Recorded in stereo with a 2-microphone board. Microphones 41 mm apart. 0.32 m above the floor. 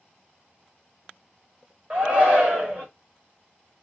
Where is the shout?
30° right (ahead or behind), 1.4 m.